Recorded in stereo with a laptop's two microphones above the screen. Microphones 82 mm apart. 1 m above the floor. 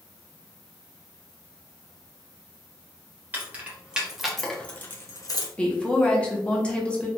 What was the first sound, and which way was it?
Keys jangling, 25° right (ahead or behind).